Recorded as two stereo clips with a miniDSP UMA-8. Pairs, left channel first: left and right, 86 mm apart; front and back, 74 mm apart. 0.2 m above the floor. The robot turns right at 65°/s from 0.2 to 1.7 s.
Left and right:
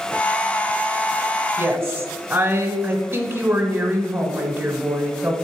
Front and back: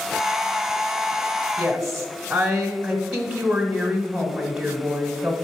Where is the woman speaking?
115° right, 1.1 m; by 5.4 s 105° right, 1.1 m.